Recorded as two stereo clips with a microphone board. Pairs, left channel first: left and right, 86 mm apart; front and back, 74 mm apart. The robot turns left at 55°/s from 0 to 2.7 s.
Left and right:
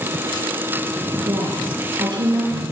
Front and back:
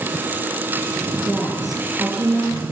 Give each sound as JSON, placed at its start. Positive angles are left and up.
{"t": 1.2, "sound": "a woman speaking", "azimuth_deg": -65, "distance_m": 6.5}